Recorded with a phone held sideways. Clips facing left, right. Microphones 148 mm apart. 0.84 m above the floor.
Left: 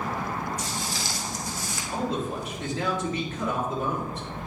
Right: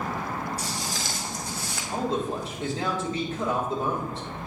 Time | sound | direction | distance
0.6 | footsteps | 35° right (ahead or behind) | 2 m
1.9 | a man speaking | 30° right (ahead or behind) | 2 m